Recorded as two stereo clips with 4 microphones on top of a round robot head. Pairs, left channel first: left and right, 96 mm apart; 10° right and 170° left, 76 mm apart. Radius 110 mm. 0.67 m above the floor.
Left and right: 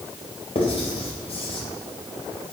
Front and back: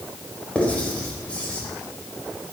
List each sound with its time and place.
0.6 s writing: 65° left, 3 m